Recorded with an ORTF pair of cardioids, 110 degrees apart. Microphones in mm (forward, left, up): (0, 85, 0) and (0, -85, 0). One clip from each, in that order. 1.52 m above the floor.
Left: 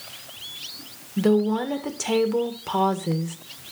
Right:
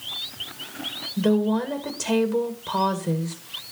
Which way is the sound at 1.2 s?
20° left.